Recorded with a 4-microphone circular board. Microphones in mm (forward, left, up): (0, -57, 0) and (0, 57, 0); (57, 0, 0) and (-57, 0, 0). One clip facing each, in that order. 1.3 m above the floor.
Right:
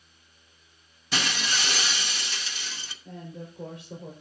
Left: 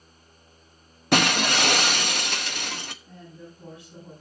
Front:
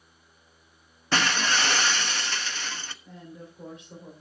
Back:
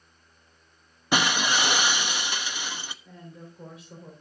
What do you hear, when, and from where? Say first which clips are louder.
1.1 s breaking glass: left 9 dB, back 1 dB; 105° left, 1.0 m
3.0 s a woman speaking: right 4 dB, front 1 dB; 95° right, 5 m